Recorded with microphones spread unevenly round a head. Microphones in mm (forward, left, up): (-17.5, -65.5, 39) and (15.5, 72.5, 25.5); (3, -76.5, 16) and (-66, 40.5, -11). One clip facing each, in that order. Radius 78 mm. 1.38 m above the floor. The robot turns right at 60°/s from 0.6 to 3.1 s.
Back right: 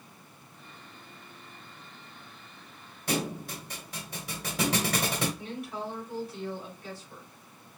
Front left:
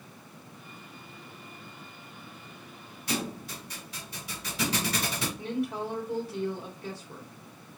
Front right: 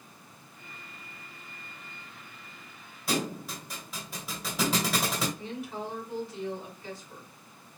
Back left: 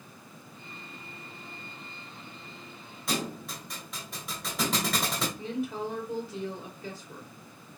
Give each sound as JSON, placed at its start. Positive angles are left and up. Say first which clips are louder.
{"t": 3.1, "sound": "a thud", "louder": "back right 2 dB, front right 2 dB", "azimuth_deg": -140, "distance_m": 1.8}
{"t": 5.4, "sound": "a woman speaking", "louder": "front left 6 dB, back left 4 dB", "azimuth_deg": 115, "distance_m": 2.5}